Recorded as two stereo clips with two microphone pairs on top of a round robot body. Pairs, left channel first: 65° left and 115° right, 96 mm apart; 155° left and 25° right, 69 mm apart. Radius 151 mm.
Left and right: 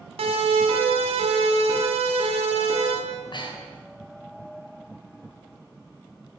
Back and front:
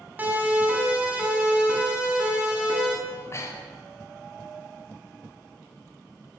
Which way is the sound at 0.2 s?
95° right.